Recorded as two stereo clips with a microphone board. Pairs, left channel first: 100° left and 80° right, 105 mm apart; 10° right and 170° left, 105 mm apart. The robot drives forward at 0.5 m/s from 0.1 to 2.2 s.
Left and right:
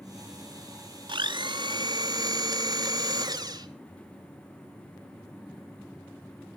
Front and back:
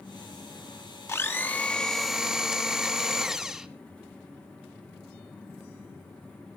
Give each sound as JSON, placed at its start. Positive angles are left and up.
{"t": 1.1, "sound": "a blender", "azimuth_deg": -70, "distance_m": 1.1}